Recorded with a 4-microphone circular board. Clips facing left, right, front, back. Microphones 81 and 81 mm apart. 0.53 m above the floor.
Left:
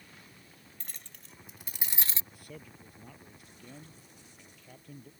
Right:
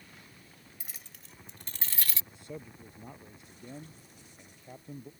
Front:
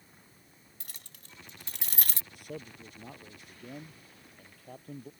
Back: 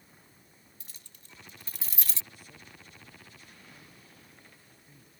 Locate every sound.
0.8 s keys jangling: 10° right; by 2.2 s 35° left
2.3 s a man speaking: 25° right